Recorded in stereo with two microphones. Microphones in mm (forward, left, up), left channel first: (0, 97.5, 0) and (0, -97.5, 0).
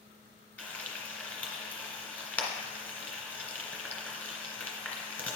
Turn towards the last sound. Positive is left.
turn(degrees=5)  # may be behind; listen again after turning